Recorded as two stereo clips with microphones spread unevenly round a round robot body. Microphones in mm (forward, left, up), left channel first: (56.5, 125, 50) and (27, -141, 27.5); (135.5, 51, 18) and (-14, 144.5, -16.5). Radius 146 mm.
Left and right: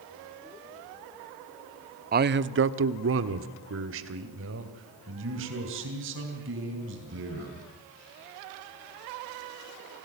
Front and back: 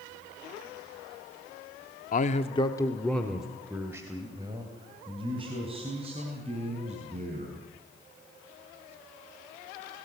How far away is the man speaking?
About 0.8 m.